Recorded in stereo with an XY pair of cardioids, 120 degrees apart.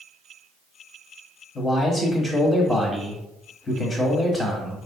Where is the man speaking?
25° left, 1.1 m.